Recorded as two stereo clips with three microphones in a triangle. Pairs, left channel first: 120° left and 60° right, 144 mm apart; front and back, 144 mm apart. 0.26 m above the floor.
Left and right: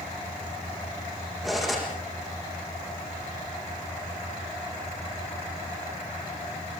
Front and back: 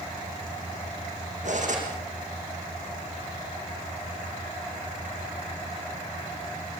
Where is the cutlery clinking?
150° right, 8.5 m.